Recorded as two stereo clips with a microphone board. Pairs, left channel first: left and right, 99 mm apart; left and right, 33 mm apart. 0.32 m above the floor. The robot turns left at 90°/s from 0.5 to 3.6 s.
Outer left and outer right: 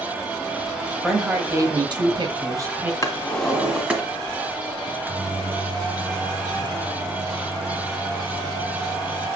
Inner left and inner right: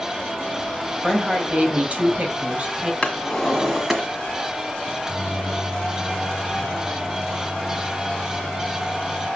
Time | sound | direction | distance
1.0 | a woman speaking | 5° left | 1.6 m
3.0 | a drawer | 40° left | 1.5 m
4.8 | a microwave | 20° right (ahead or behind) | 0.8 m